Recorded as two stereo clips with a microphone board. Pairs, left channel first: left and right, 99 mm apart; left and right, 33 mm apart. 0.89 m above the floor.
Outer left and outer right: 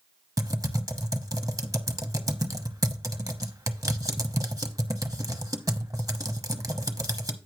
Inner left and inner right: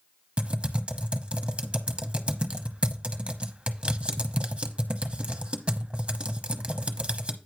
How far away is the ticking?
I don't hear ticking.